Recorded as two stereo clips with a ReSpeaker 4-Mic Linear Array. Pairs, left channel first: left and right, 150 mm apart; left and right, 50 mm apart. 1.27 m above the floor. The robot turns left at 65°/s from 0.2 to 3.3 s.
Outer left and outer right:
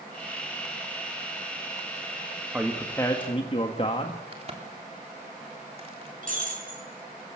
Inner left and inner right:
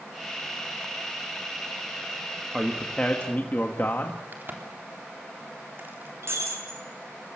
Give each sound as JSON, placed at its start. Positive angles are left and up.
{"t": 2.5, "sound": "a man speaking", "azimuth_deg": -170, "distance_m": 1.5}
{"t": 4.3, "sound": "a crack", "side_deg": -40, "distance_m": 3.5}
{"t": 6.2, "sound": "breaking glass", "side_deg": -65, "distance_m": 7.5}